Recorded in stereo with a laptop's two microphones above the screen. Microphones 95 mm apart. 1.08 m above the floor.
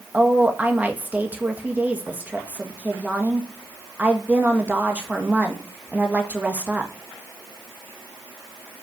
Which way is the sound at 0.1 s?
15° right (ahead or behind).